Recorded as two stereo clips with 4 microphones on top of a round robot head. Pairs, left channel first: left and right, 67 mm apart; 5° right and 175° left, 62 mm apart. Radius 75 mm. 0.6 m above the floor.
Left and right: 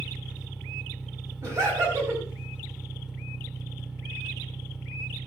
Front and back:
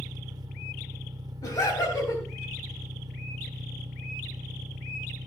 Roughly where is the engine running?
Behind.